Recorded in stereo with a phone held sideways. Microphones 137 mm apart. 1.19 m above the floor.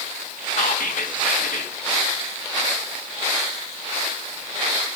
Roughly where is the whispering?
Left.